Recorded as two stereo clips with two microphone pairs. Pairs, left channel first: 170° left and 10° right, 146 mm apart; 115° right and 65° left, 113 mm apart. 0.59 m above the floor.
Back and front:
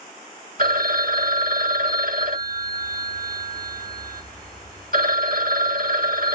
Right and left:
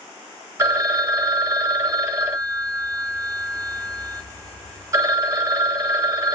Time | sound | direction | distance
0.6 | a phone ringing | straight ahead | 1.3 m